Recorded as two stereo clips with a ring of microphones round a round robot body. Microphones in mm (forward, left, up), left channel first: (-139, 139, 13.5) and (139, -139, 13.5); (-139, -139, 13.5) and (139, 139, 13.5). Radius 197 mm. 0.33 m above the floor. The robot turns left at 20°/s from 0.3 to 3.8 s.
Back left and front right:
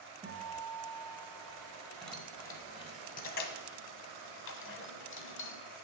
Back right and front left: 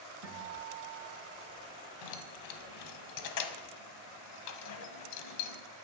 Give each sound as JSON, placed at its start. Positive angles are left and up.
{"t": 0.2, "sound": "a guitar", "azimuth_deg": 30, "distance_m": 1.9}
{"t": 2.0, "sound": "keys jangling", "azimuth_deg": -135, "distance_m": 0.8}